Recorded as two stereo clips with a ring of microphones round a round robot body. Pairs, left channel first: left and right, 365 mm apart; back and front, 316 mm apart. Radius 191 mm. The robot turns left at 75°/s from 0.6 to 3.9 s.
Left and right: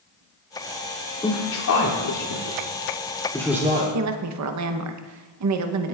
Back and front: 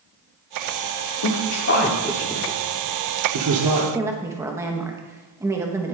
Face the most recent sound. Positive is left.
turn(degrees=-80)